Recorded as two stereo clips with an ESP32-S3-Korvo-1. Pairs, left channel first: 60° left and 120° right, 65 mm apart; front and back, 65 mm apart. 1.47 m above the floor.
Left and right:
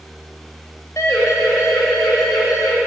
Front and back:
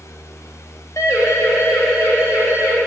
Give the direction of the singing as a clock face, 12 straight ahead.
No singing in this recording.